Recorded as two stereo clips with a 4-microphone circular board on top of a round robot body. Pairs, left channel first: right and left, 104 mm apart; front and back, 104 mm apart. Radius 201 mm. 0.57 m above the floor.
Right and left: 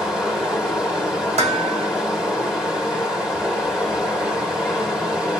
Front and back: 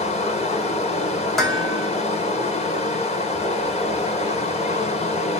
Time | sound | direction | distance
0.0 | running water | 5° left | 1.8 m
1.4 | dishes clattering | 85° left | 1.8 m